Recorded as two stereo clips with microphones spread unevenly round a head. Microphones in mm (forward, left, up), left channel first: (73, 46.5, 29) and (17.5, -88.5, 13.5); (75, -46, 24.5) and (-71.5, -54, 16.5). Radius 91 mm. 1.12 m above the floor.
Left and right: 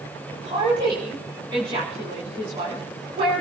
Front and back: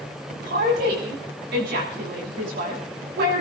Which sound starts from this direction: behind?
A woman speaking, at 0.4 s.